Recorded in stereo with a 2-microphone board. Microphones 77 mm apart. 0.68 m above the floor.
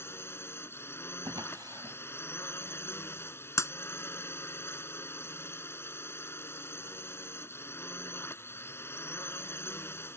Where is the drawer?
60° right (ahead or behind).